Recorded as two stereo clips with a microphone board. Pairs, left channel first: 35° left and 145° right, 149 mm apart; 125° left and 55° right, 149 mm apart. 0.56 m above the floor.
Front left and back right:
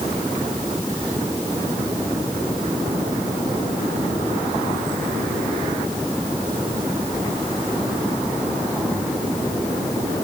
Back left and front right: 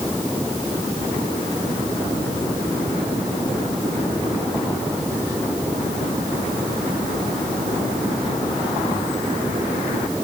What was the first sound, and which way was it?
Only background noise.